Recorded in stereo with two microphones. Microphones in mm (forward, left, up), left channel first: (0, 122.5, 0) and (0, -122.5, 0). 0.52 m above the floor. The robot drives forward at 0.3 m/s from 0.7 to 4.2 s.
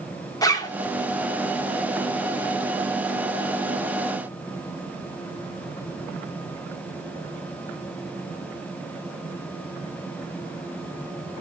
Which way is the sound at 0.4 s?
15° left (ahead or behind).